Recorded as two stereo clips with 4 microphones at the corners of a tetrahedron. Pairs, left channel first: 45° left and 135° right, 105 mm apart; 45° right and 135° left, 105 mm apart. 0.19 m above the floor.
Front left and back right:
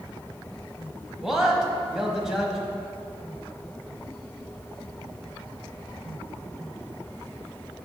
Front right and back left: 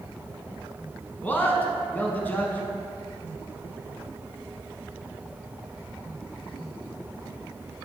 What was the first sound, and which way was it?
A man speaking, 60° right.